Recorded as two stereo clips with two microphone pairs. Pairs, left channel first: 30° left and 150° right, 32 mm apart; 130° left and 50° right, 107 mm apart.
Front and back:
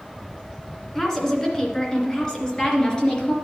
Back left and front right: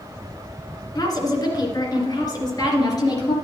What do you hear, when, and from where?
0.9 s a woman speaking: 100° left, 2 m; by 3.4 s 85° left, 3 m